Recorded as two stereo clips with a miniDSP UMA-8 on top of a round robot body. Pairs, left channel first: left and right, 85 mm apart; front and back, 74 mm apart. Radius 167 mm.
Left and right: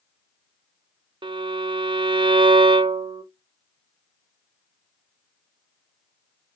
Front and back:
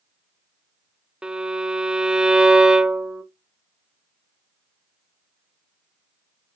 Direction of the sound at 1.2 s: 100° right.